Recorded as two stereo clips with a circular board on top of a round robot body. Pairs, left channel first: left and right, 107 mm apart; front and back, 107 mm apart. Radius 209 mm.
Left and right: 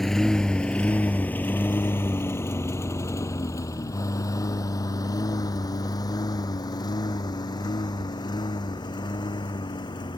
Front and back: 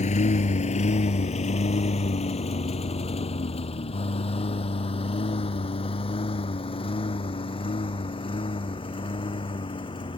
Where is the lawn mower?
Straight ahead; by 10.2 s 40° left.